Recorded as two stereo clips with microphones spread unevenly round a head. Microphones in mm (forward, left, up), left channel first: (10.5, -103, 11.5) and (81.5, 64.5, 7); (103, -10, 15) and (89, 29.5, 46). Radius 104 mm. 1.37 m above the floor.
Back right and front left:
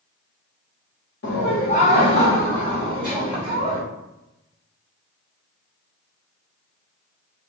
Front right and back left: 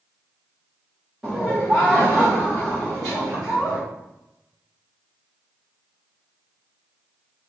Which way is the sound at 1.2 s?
140° right.